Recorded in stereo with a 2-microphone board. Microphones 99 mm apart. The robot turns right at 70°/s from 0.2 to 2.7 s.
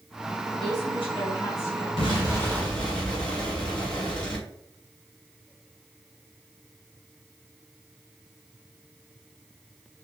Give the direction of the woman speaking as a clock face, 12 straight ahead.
9 o'clock.